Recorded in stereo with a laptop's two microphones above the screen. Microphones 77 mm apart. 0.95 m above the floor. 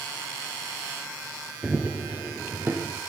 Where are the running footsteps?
10° right (ahead or behind), 1.0 m; by 3.0 s 30° right (ahead or behind), 2 m.